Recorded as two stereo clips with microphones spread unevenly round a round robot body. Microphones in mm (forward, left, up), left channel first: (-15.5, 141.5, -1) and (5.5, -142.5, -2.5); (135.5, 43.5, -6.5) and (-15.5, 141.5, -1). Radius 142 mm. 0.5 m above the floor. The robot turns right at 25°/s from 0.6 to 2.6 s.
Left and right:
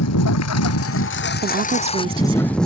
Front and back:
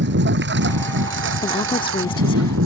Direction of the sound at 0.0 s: 130° left.